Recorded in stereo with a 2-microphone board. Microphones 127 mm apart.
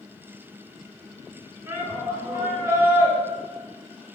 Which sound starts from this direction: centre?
A shout, at 1.7 s.